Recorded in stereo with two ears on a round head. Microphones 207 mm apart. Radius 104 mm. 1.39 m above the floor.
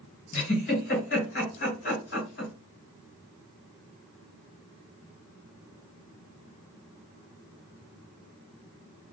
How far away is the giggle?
About 1.5 m.